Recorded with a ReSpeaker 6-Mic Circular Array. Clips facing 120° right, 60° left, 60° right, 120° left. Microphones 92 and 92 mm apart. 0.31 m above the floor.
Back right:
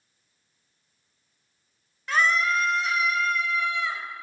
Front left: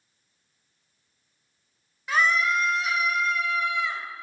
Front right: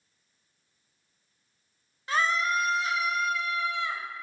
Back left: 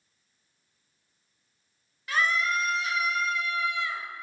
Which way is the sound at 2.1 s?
25° right.